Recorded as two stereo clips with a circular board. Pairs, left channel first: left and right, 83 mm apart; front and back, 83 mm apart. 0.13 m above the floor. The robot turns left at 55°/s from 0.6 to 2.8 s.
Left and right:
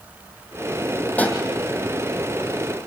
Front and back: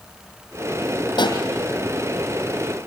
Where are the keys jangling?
No keys jangling in this recording.